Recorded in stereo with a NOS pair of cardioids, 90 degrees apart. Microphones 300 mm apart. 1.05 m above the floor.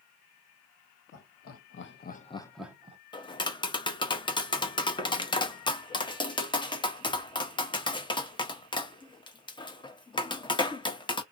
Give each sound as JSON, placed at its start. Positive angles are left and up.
{"t": 1.1, "sound": "laughter", "azimuth_deg": 60, "distance_m": 1.3}
{"t": 3.1, "sound": "tapping", "azimuth_deg": 15, "distance_m": 0.8}